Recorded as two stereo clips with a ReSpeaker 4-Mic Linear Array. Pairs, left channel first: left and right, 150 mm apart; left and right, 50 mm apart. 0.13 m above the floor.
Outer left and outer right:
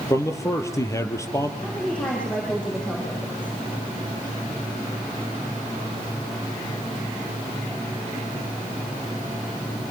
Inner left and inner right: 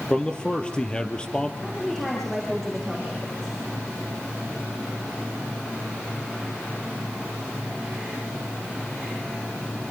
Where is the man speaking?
20° left (ahead or behind), 3.5 m.